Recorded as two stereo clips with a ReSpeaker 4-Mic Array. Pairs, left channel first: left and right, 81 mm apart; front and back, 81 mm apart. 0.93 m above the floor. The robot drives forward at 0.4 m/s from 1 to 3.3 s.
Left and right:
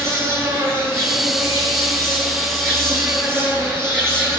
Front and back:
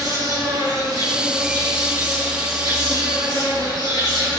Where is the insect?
145° right, 8 m; by 4.4 s 150° right, 9 m.